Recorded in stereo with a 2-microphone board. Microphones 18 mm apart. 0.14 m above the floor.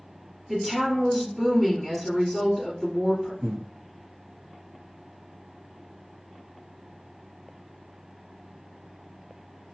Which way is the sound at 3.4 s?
60° right (ahead or behind).